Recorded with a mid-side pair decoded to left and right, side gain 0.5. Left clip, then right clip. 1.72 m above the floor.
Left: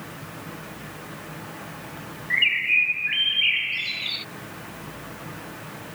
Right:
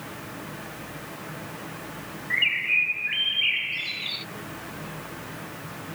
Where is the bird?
20° left.